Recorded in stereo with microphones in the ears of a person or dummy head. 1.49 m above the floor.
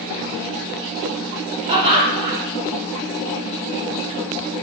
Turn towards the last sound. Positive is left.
turn(degrees=-30)  # may be behind; listen again after turning